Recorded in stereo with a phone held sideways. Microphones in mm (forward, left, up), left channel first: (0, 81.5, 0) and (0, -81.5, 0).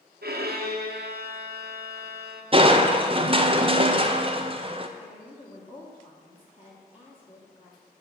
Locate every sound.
0.2 s a violin: 75° right (ahead or behind), 0.8 m
2.5 s crushing: 35° right (ahead or behind), 0.5 m
5.0 s a woman speaking: 35° left (ahead or behind), 1.4 m